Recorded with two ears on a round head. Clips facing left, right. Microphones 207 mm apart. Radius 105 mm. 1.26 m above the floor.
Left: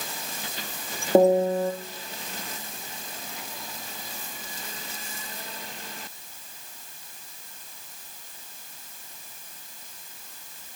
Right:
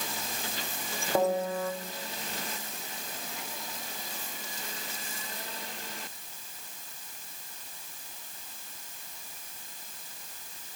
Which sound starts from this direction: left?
A piano, at 1.1 s.